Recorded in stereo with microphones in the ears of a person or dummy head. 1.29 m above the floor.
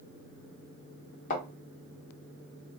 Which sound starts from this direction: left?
A thud, at 1.3 s.